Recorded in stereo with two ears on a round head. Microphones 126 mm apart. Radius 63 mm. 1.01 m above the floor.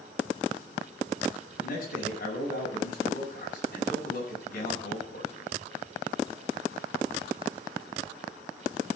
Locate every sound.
1.6 s a man speaking: 60° left (ahead or behind), 7 m